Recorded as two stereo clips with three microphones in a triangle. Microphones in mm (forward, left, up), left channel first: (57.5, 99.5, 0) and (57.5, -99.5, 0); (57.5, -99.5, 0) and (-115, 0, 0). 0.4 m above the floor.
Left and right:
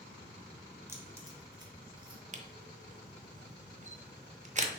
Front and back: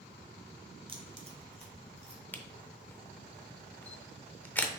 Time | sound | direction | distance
0.9 | keys jangling | 160° right | 0.7 m
2.3 | a camera shutter | 110° right | 0.5 m